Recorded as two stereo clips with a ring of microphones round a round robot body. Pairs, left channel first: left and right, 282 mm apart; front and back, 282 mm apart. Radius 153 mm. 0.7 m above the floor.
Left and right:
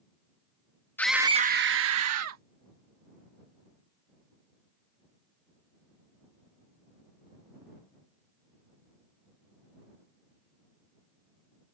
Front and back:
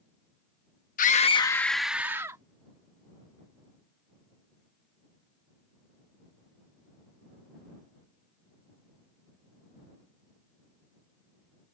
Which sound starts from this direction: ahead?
A scream, at 1.0 s.